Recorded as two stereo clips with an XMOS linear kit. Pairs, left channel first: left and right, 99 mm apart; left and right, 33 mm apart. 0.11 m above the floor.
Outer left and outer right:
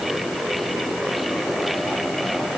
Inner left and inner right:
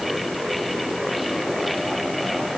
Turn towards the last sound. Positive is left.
No sound to turn to.